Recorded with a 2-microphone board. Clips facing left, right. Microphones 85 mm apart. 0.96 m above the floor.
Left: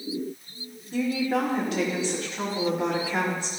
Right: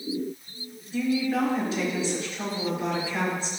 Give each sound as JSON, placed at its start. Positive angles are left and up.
{"t": 0.9, "sound": "a woman speaking", "side_deg": 75, "distance_m": 2.5}